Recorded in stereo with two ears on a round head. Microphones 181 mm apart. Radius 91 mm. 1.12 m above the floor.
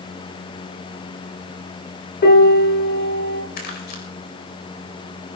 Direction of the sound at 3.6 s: 60° left (ahead or behind).